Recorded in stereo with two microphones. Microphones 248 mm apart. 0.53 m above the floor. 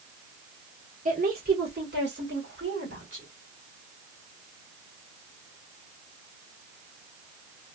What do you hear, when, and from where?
1.1 s a woman speaking: 30° right (ahead or behind), 1.1 m; by 3.3 s 50° right (ahead or behind), 1.9 m